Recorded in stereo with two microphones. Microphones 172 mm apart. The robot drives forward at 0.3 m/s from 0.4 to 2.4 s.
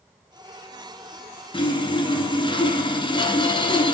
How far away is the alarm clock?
I don't hear an alarm clock.